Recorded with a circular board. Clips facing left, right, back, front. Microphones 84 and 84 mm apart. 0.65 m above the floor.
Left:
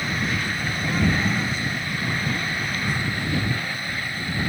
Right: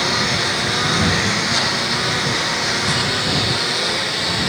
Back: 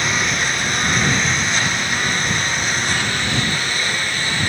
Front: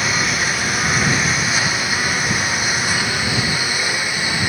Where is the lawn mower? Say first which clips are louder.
Right 6 dB, even; 85° right; by 4.5 s 80° right.